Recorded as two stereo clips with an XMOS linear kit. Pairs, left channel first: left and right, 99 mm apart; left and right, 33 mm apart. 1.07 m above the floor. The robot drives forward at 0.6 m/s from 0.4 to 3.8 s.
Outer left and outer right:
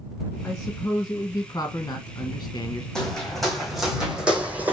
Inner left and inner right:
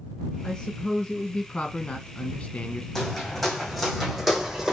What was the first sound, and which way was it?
A man speaking, 20° left (ahead or behind).